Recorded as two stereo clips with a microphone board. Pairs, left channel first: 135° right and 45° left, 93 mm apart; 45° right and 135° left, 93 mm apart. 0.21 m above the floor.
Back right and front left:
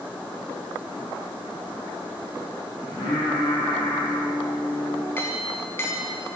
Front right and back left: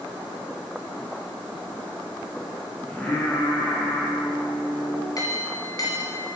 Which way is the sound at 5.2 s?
80° right.